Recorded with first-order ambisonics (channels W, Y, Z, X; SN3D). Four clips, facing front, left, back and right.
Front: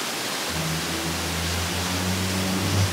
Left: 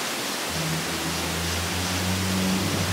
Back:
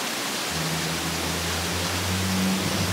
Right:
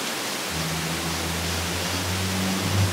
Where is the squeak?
30° left, 2.5 m.